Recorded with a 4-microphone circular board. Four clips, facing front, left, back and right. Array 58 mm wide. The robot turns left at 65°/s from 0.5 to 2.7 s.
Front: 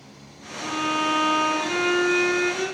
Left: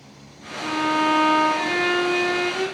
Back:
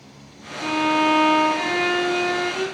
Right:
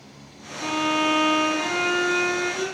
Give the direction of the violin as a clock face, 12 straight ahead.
5 o'clock.